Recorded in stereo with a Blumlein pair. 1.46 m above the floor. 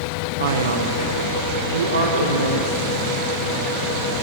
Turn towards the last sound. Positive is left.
turn(degrees=-75)